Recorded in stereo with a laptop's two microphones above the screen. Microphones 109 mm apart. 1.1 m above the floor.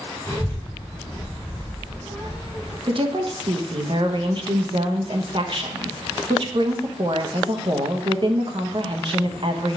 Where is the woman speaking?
50° right (ahead or behind), 0.9 m.